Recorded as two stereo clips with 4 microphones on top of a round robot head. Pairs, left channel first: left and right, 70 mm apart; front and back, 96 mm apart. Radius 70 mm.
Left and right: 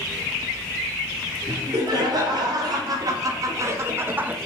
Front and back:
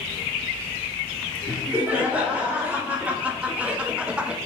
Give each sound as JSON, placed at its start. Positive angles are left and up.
{"t": 1.5, "sound": "laughter", "azimuth_deg": -105, "distance_m": 2.0}